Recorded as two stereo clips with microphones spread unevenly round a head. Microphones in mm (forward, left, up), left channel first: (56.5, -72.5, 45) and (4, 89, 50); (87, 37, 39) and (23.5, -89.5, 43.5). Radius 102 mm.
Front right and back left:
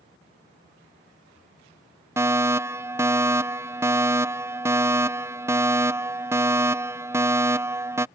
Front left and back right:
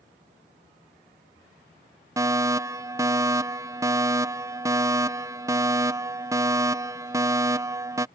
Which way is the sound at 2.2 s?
Straight behind.